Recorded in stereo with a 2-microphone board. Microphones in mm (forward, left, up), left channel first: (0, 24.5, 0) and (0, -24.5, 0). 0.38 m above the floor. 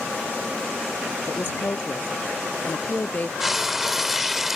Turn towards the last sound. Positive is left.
turn(degrees=-10)  # may be behind; listen again after turning